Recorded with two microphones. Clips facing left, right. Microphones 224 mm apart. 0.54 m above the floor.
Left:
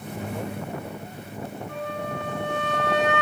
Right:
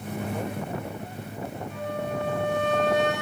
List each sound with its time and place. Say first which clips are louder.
1.7 s a flute: right 2 dB; 75° left (ahead or behind), 7.5 m